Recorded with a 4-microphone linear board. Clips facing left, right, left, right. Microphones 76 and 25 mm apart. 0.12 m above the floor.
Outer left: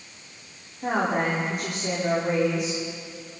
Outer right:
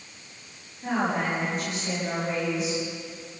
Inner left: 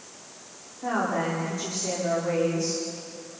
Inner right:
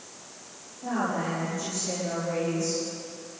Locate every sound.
0.8 s a woman speaking: 65° left (ahead or behind), 9 m